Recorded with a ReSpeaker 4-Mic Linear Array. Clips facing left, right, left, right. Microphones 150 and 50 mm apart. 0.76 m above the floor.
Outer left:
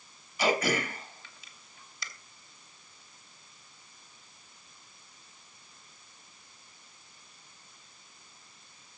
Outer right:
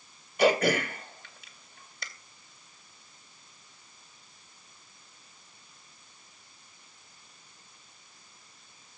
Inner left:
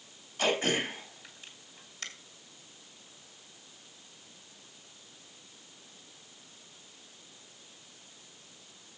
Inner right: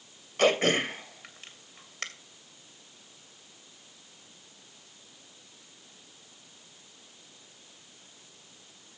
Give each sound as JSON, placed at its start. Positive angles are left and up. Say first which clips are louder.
{"t": 0.4, "sound": "throat clearing", "louder": "outer right 4 dB, inner right 5 dB", "side_deg": -55, "distance_m": 2.5}